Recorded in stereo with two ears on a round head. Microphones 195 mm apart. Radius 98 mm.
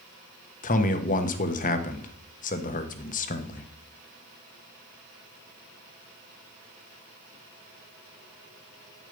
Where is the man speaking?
35° left (ahead or behind), 1.0 m.